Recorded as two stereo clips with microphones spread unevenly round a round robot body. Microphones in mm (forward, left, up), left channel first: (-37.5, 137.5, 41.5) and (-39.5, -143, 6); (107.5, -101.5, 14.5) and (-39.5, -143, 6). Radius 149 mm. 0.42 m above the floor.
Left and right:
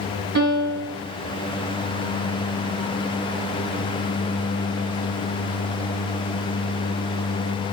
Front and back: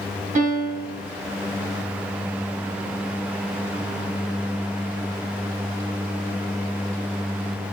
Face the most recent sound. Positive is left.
turn(degrees=-140)